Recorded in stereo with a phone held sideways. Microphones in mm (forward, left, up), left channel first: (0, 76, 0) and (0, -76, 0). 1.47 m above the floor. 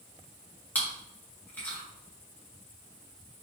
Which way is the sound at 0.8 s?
10° left (ahead or behind).